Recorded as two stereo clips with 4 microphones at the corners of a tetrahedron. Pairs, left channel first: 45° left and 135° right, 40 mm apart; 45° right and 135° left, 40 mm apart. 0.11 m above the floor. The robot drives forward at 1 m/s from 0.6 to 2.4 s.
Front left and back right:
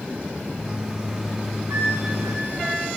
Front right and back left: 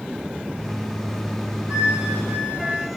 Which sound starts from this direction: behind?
A flute, at 1.7 s.